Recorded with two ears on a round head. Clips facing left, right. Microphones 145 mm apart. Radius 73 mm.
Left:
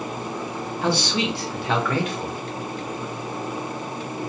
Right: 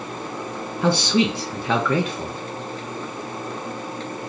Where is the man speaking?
80° right, 0.8 m.